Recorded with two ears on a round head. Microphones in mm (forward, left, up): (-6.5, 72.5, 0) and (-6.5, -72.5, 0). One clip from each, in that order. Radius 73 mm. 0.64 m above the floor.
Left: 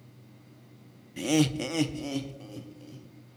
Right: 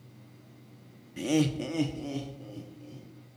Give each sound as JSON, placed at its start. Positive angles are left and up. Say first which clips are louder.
{"t": 1.2, "sound": "laughter", "louder": "left 2 dB", "side_deg": 15, "distance_m": 0.7}